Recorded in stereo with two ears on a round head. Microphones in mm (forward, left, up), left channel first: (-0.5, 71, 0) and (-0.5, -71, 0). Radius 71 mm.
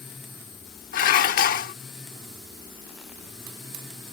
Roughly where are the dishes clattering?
Left.